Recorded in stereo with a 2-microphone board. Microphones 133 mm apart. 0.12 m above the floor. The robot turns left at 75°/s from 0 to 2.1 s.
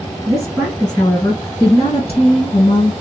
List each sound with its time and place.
0.3 s a woman speaking: 145° right, 1.9 m; by 2.9 s 75° left, 1.9 m